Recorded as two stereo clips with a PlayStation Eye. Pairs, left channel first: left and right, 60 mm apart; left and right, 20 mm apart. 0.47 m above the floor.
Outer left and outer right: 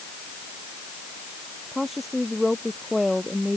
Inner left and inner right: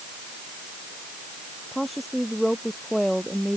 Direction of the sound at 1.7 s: 5° right (ahead or behind).